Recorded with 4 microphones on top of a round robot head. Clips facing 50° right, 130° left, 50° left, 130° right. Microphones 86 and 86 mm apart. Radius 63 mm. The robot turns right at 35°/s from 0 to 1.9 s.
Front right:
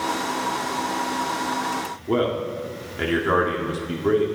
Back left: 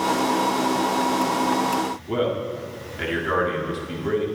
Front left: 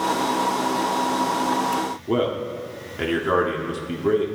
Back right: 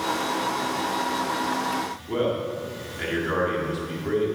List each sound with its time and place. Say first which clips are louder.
2.1 s a man speaking: front right 5 dB, front left 2 dB; 10° left, 1.8 m